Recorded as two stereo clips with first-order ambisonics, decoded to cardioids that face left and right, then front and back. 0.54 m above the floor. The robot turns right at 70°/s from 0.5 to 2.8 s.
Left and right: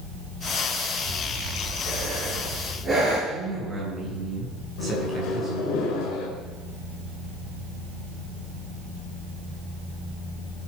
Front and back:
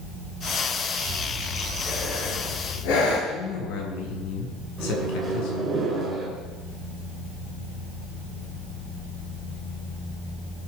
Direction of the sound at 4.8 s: 105° left.